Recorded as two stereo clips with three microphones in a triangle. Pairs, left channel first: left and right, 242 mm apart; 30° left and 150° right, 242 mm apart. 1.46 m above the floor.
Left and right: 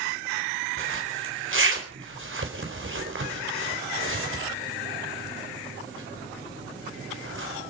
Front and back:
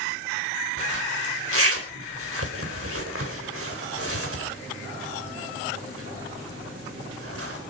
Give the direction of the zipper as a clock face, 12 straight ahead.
4 o'clock.